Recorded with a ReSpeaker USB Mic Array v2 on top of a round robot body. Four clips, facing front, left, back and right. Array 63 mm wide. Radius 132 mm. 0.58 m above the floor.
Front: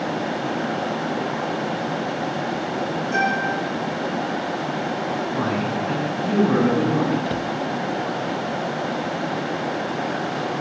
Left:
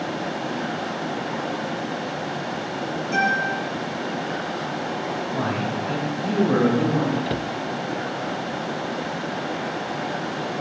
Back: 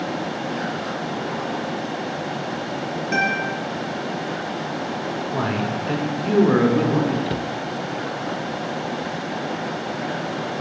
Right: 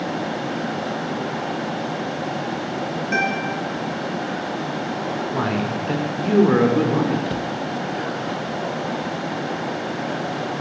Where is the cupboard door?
105° left, 0.5 m.